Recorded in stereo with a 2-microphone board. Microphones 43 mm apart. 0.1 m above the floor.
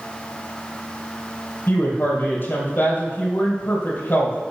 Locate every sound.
1.7 s a woman speaking: 45° left (ahead or behind), 3 m